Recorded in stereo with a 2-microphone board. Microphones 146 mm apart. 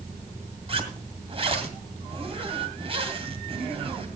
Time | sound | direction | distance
0.7 | a zipper | 40° right (ahead or behind) | 2 m